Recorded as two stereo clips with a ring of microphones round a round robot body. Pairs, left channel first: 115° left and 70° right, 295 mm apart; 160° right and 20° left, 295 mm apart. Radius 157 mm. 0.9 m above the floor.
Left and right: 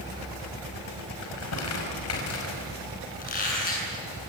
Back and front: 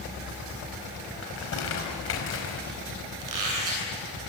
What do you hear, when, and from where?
1.2 s crumpling: 155° left, 5 m
3.2 s a squeak: 50° left, 8.5 m